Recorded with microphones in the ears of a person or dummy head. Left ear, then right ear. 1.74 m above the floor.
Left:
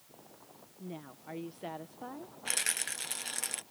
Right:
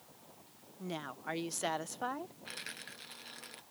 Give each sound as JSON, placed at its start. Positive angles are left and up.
{"t": 0.8, "sound": "a woman speaking", "side_deg": -50}
{"t": 2.5, "sound": "a rattle", "side_deg": 20}